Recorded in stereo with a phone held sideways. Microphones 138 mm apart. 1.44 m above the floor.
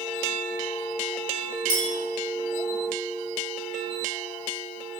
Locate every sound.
1.7 s a clink: 30° left (ahead or behind), 0.7 m